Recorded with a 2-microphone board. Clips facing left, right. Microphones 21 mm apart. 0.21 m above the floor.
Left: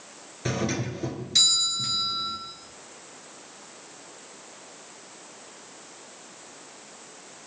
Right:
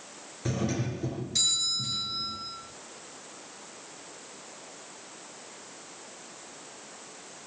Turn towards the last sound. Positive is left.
turn(degrees=35)  # may be behind; listen again after turning